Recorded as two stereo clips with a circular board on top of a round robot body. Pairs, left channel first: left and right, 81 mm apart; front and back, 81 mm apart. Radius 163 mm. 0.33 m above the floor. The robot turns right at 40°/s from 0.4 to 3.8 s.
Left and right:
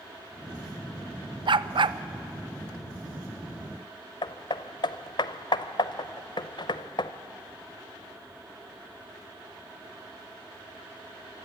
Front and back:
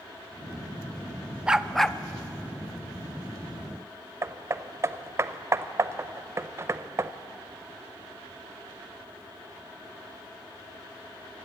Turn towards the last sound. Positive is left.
turn(degrees=120)